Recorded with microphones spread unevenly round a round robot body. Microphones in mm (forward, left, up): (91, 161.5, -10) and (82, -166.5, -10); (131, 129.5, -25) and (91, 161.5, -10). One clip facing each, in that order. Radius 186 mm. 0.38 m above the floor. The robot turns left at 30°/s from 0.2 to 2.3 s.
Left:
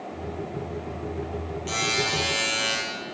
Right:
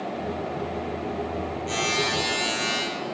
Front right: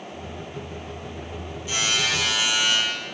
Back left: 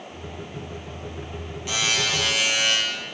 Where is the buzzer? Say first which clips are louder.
Even, even; 155° left, 6.5 m; by 2.8 s 140° left, 6.5 m.